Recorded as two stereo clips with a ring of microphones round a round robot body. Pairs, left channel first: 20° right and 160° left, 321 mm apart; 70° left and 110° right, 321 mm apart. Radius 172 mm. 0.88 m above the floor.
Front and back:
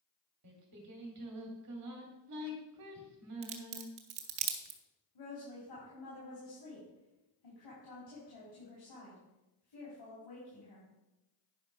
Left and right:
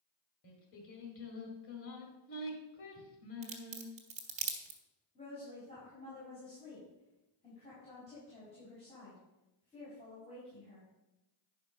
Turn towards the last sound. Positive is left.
turn(degrees=-5)